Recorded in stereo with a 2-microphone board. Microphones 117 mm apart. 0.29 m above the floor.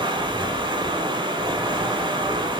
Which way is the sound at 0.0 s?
45° right (ahead or behind).